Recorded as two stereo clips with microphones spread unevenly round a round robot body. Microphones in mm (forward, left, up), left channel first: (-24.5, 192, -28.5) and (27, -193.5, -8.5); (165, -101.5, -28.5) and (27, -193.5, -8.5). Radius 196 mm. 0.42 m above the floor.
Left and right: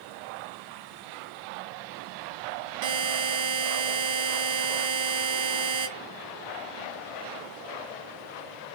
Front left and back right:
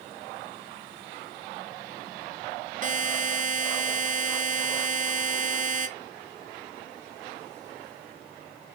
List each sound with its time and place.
2.8 s a buzzer: 115° right, 0.9 m